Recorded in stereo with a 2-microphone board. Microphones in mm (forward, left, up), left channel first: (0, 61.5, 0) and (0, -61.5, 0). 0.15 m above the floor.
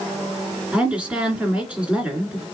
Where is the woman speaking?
10° right (ahead or behind), 2 m.